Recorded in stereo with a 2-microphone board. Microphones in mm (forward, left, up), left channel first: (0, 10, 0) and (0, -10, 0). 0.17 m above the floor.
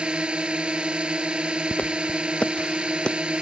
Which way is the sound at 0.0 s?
65° right (ahead or behind).